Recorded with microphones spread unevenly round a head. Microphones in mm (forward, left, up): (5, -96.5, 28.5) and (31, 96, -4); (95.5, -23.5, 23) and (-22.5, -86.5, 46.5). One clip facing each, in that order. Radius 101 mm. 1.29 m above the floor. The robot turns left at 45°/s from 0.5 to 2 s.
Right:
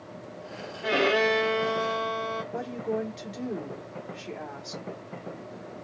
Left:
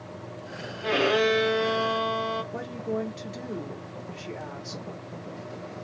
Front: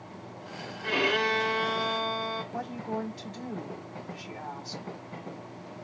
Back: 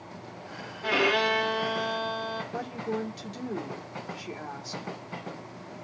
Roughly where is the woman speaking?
Behind.